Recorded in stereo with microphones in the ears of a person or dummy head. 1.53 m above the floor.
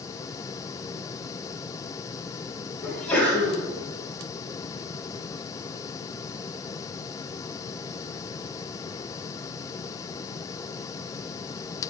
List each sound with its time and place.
2.8 s a sneeze: 5° left (ahead or behind), 2.5 m